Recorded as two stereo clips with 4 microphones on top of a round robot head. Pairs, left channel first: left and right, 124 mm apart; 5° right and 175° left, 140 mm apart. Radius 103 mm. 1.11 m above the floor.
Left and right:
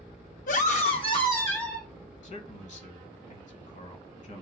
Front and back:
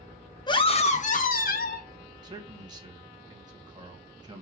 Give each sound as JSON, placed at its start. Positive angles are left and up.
{"t": 0.5, "sound": "a scream", "azimuth_deg": 55, "distance_m": 0.8}
{"t": 2.2, "sound": "a man speaking", "azimuth_deg": 115, "distance_m": 1.2}